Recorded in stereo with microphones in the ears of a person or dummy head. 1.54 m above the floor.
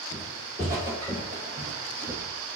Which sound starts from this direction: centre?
Footsteps, at 0.1 s.